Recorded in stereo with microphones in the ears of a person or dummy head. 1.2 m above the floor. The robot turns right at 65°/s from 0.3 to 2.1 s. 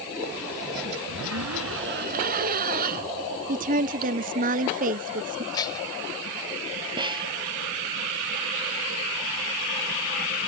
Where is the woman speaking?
30° right (ahead or behind).